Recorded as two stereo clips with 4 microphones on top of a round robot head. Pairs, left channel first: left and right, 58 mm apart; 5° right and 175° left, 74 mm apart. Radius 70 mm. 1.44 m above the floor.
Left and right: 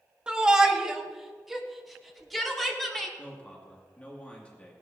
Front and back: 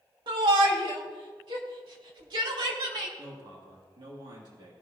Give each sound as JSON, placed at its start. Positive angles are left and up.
{"t": 0.3, "sound": "a shout", "azimuth_deg": -165, "distance_m": 1.8}
{"t": 3.2, "sound": "a man speaking", "azimuth_deg": 155, "distance_m": 2.5}